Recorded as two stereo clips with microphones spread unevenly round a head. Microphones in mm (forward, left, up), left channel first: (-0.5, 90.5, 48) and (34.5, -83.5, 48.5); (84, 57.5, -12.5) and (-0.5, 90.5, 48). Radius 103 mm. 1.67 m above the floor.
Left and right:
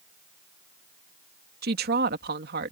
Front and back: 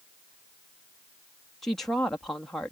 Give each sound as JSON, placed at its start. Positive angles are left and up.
{"t": 1.6, "sound": "a woman speaking", "azimuth_deg": -120}